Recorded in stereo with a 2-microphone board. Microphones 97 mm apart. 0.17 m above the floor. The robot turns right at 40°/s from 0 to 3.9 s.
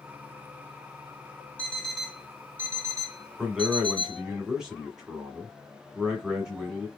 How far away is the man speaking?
About 1.5 m.